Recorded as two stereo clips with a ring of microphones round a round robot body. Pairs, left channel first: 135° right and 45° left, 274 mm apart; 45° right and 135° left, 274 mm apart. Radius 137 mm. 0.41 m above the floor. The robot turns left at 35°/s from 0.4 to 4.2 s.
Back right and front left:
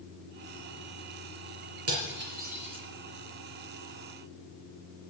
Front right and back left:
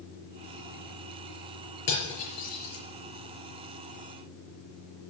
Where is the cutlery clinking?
5° left, 4.5 m; by 2.9 s 30° right, 4.5 m.